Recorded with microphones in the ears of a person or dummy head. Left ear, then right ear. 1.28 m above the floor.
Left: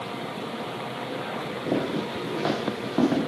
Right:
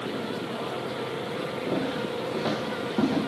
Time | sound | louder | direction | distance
1.7 | footsteps | left 3 dB | 75° left (ahead or behind) | 5.5 m